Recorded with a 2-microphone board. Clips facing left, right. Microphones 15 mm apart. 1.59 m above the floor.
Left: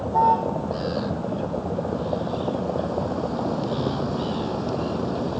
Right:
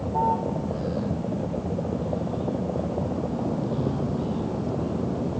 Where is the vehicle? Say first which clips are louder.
Left 5 dB; 65° left (ahead or behind); by 5.4 s 80° left.